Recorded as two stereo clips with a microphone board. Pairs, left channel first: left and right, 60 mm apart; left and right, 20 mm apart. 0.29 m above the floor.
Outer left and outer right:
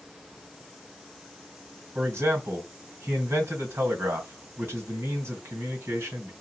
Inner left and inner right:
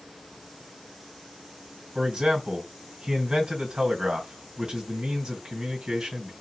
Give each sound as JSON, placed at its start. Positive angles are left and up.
{"t": 1.9, "sound": "a man speaking", "side_deg": -50, "distance_m": 2.0}